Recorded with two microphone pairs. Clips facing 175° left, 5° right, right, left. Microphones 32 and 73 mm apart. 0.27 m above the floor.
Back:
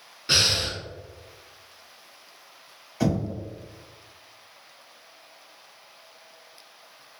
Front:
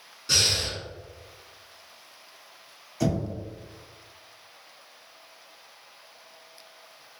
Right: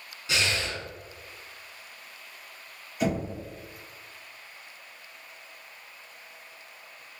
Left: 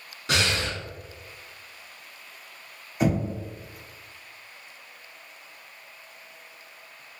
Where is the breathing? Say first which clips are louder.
Back 2 dB, left 3 dB; 120° left, 0.5 m.